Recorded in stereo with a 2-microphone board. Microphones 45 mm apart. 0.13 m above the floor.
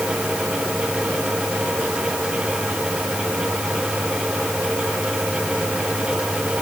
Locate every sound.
Only background noise.